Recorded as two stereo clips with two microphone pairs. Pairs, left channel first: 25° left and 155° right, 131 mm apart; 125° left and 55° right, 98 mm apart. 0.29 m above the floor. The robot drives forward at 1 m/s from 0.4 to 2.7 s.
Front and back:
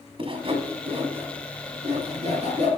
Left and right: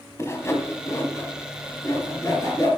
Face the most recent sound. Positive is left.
turn(degrees=180)